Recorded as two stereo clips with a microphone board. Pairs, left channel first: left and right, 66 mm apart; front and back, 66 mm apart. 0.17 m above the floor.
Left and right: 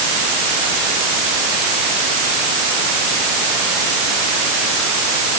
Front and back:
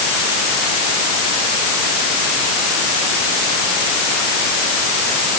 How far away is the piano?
No piano in this recording.